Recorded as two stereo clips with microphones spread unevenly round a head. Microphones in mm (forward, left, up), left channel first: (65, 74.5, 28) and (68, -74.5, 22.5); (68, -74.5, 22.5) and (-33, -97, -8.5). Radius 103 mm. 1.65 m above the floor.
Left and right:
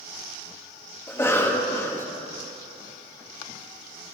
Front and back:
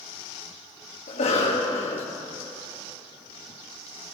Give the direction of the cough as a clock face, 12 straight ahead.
11 o'clock.